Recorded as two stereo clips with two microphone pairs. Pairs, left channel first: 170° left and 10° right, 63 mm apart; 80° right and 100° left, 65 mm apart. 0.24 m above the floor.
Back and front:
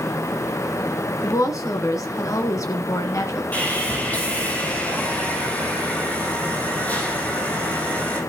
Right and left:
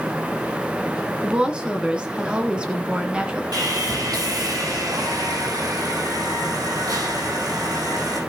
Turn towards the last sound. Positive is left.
turn(degrees=105)